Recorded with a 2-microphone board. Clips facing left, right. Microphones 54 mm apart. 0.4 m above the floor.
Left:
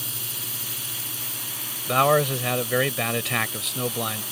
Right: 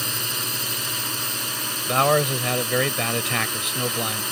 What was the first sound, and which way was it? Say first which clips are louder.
A drone: right 9 dB; 65° right (ahead or behind).